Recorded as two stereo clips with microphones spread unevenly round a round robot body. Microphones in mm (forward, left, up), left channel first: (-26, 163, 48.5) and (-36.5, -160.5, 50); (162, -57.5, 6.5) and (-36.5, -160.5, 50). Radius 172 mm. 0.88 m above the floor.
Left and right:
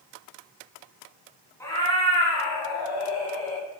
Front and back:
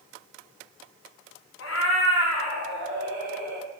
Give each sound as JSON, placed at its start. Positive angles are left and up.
{"t": 1.6, "sound": "a cat meowing", "azimuth_deg": 5, "distance_m": 1.7}